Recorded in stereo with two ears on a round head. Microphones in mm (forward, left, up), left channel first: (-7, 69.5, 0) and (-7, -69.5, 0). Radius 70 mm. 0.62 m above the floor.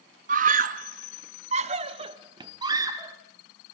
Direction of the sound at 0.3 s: 50° right (ahead or behind).